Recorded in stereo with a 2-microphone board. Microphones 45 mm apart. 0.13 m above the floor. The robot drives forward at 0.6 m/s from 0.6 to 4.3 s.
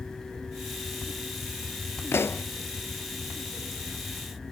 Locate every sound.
2.1 s a pop: 70° left (ahead or behind), 0.6 m; by 2.5 s 60° left (ahead or behind), 0.7 m